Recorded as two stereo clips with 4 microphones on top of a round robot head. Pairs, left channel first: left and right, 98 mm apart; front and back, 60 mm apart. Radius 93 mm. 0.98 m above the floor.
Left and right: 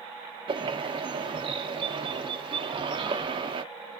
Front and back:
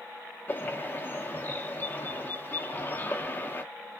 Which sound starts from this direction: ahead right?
A bird, at 0.5 s.